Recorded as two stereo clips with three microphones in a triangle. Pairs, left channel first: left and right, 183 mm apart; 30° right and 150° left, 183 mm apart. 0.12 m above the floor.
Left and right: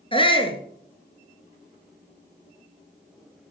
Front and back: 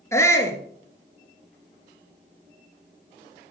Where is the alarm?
No alarm in this recording.